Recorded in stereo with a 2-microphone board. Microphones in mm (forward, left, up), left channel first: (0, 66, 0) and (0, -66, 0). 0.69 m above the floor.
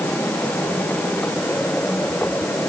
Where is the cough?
No cough in this recording.